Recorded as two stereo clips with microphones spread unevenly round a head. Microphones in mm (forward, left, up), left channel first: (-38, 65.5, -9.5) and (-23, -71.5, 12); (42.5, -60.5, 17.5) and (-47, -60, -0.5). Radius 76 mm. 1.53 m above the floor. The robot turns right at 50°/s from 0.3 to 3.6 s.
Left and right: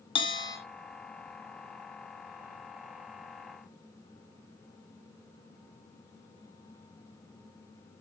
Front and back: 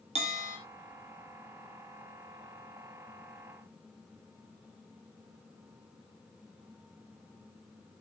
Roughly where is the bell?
Behind left.